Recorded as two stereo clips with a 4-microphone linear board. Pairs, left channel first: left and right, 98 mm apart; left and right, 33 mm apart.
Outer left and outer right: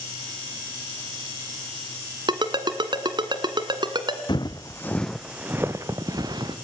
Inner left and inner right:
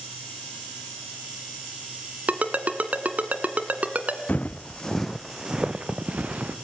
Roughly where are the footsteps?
Left.